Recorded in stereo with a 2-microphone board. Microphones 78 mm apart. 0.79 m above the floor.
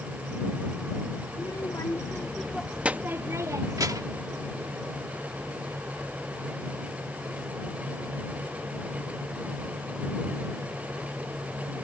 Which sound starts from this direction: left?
A child speaking, at 1.3 s.